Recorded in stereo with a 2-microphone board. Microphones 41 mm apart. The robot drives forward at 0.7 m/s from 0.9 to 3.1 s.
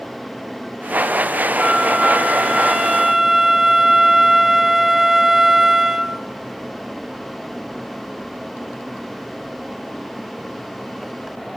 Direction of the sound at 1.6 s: 5° right (ahead or behind).